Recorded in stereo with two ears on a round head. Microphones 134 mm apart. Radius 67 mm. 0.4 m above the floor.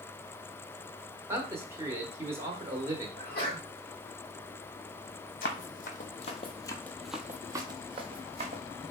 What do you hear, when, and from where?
1.3 s a man speaking: 15° right (ahead or behind), 0.9 m
3.2 s a sneeze: 40° left (ahead or behind), 2.5 m
5.4 s running footsteps: 65° left (ahead or behind), 1.0 m; by 8.6 s 50° right (ahead or behind), 1.1 m